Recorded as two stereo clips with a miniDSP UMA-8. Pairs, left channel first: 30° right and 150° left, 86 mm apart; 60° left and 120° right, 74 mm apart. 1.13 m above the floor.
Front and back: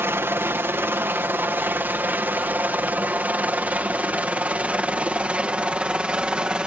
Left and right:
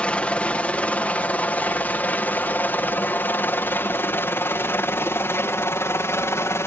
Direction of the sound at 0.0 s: 120° left.